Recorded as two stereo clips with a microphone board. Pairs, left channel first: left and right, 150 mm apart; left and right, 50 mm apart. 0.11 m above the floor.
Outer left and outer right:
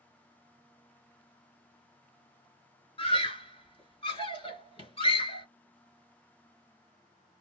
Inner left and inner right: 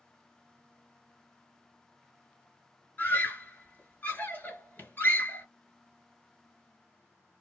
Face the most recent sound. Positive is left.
turn(degrees=35)  # may be behind; listen again after turning